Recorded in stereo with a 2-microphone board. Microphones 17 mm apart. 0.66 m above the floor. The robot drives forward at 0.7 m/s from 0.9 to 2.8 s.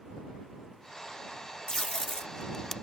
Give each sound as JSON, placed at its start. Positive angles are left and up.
{"t": 1.7, "sound": "tape being pulled", "side_deg": 45}